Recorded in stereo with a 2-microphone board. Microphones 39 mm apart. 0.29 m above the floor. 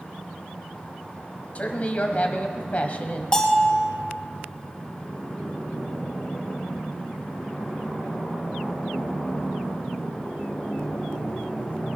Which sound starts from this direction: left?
A woman speaking, at 1.6 s.